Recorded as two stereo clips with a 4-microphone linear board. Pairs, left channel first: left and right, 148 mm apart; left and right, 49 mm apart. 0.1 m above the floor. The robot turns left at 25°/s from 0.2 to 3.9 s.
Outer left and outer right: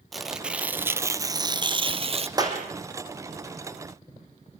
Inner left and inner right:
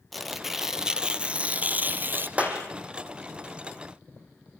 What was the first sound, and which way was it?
Tearing paper, straight ahead.